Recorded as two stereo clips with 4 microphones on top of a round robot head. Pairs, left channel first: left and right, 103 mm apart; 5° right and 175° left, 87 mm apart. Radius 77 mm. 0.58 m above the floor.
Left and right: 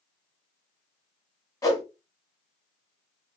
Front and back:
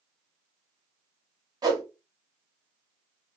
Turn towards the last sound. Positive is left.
turn(degrees=145)